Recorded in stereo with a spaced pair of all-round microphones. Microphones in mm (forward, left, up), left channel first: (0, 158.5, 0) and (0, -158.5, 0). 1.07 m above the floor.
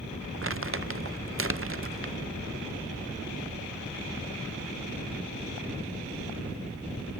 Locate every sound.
0.4 s crumpling: 40° right (ahead or behind), 0.5 m